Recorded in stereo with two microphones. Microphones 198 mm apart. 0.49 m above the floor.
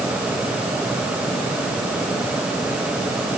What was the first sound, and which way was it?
Only background noise.